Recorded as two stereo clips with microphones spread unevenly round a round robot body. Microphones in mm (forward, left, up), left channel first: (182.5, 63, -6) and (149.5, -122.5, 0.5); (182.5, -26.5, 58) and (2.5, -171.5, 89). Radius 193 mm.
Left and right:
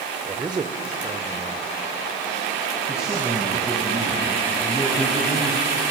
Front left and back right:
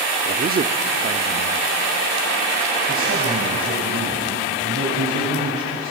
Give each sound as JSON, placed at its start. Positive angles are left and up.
{"t": 0.2, "sound": "a man speaking", "azimuth_deg": -155, "distance_m": 0.9}
{"t": 2.9, "sound": "a man speaking", "azimuth_deg": 180, "distance_m": 3.0}